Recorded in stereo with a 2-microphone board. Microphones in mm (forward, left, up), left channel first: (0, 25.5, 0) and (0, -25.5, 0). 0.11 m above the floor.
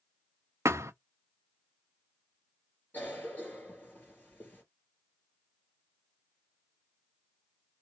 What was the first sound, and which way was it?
A thud, 80° right.